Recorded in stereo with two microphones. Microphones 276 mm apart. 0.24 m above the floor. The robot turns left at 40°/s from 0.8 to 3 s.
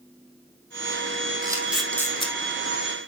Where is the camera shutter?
15° right (ahead or behind), 2 m; by 2.4 s 20° left (ahead or behind), 2 m.